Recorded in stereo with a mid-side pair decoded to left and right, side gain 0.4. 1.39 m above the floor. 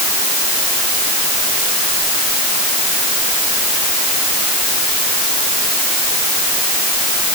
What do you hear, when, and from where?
Only background noise.